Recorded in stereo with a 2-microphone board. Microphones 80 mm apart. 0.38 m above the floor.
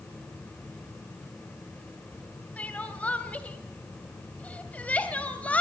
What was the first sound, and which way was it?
Crying, 15° left (ahead or behind).